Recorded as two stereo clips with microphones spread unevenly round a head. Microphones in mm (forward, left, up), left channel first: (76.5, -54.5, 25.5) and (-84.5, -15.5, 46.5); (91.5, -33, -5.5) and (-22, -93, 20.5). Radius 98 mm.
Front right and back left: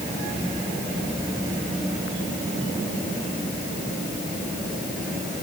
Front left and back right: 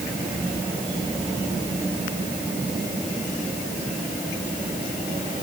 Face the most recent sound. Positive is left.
No sound to turn to.